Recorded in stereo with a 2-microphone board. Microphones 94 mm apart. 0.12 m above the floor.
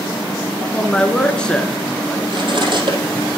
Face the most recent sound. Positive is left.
turn(degrees=-60)  # may be behind; listen again after turning